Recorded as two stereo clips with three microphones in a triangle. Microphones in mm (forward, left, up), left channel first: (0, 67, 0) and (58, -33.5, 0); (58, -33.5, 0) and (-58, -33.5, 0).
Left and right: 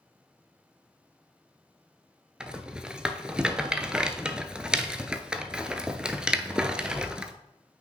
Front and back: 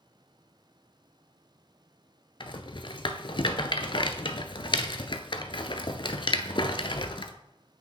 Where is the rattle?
20° left, 0.6 m.